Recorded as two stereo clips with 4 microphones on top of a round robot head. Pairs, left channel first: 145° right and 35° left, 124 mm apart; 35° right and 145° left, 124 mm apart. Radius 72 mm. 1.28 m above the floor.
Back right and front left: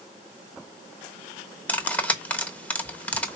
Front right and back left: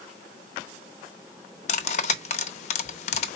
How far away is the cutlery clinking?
About 0.7 m.